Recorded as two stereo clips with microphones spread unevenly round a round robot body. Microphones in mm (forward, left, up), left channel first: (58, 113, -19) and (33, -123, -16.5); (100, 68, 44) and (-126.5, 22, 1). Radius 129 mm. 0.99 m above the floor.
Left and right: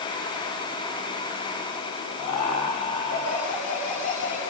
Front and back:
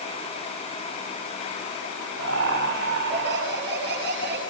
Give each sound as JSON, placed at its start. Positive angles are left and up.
{"t": 2.2, "sound": "laughter", "azimuth_deg": 145, "distance_m": 9.5}